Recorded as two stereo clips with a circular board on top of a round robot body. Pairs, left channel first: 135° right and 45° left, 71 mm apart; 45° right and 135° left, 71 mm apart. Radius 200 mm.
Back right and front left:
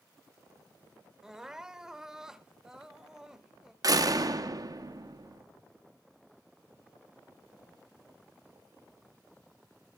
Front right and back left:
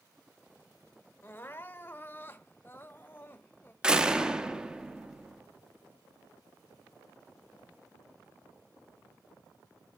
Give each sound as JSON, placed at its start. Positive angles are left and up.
{"t": 1.2, "sound": "crying", "azimuth_deg": -30, "distance_m": 1.0}
{"t": 3.8, "sound": "a door slam", "azimuth_deg": 60, "distance_m": 1.2}